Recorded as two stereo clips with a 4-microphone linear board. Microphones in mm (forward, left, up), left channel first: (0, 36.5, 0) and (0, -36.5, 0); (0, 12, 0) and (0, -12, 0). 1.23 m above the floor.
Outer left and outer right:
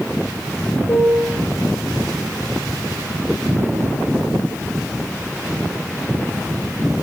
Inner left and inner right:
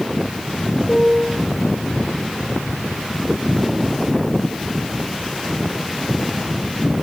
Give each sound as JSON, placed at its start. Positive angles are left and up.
{"t": 0.9, "sound": "a piano", "side_deg": 55, "distance_m": 5.5}